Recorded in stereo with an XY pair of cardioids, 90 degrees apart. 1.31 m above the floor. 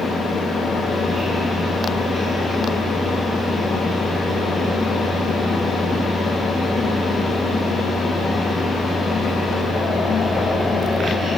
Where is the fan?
60° left, 1.2 m.